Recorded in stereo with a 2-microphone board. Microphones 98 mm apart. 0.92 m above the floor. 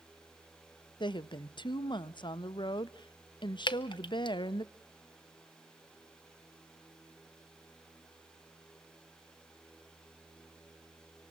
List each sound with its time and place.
1.0 s a woman speaking: 50° left (ahead or behind), 0.6 m
3.7 s dripping: 55° left (ahead or behind), 0.8 m